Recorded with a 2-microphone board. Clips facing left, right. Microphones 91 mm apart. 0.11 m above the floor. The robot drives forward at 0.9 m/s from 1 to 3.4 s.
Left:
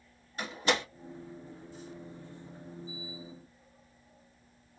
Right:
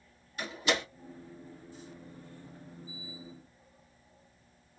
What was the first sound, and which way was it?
A door slam, 35° left (ahead or behind).